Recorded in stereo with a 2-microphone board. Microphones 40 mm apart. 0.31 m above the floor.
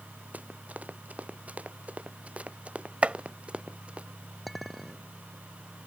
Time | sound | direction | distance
0.3 | running footsteps | 40° right (ahead or behind) | ?
3.0 | chopping | 35° right (ahead or behind) | ?
4.5 | a clink | centre (ahead or behind) | ?